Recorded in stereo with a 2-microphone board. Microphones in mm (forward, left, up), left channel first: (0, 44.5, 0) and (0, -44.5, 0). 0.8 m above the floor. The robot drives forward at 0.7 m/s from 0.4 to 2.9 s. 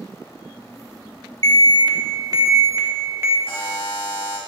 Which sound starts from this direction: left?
A buzzer, at 3.5 s.